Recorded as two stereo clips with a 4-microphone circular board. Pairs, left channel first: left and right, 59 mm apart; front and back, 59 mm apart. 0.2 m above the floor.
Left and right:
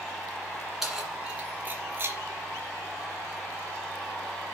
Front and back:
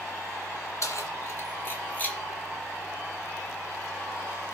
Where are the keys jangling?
5° right, 2.0 m; by 2.2 s 55° right, 1.6 m.